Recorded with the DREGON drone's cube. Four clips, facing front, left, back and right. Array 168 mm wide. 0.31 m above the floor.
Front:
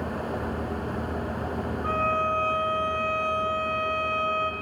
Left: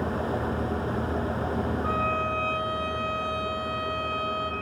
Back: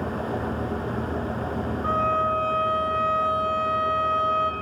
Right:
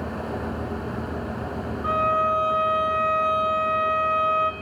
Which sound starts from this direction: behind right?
A violin, at 1.8 s.